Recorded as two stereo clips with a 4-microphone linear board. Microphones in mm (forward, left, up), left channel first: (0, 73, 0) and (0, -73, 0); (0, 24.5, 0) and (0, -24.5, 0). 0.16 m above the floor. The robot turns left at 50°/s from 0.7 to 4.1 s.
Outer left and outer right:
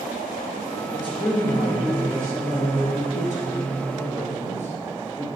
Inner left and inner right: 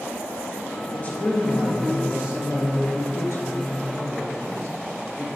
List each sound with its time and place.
0.9 s a woman speaking: 45° left, 3 m; by 5.3 s 115° right, 3 m